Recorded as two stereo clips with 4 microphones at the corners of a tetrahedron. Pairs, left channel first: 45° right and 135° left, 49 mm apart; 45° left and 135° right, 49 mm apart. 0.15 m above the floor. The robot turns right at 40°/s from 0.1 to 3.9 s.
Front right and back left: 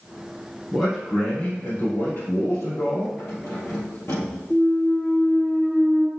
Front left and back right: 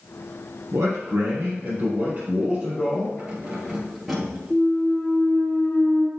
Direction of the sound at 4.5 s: 10° left.